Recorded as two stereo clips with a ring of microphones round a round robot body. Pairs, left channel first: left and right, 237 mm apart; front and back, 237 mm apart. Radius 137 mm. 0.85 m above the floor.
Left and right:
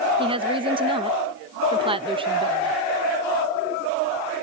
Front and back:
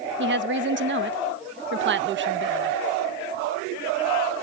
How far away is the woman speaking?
About 0.7 m.